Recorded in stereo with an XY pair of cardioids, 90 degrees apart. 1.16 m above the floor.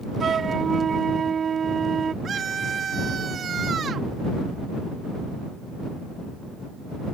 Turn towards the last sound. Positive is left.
turn(degrees=-55)